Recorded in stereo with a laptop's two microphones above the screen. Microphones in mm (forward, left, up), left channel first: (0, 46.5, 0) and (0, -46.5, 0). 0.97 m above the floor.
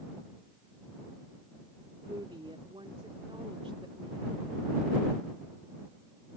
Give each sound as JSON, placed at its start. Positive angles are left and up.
{"t": 2.0, "sound": "a woman speaking", "side_deg": -80}